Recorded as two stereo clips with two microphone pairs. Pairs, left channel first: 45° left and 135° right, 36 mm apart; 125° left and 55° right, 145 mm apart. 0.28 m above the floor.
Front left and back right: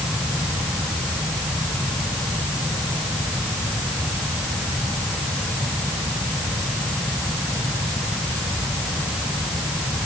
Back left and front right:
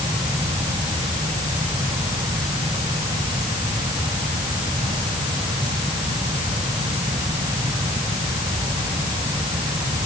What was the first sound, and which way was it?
Only background noise.